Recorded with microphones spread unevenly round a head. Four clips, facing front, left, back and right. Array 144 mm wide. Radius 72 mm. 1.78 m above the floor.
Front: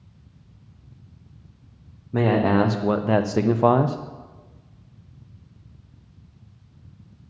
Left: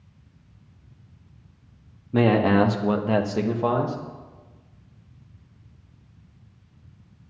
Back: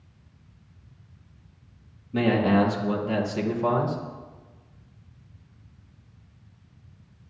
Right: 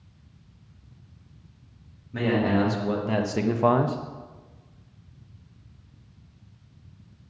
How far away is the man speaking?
About 1.3 m.